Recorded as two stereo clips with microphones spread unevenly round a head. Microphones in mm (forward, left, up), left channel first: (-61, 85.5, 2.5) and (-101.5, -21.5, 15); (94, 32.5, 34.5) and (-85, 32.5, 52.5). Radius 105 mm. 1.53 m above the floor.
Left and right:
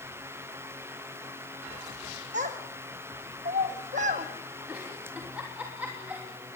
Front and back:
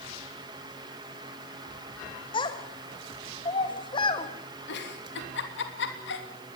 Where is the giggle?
25° right, 3 m.